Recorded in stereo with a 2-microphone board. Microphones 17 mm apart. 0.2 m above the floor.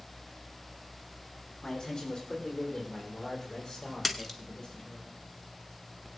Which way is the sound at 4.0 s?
15° left (ahead or behind).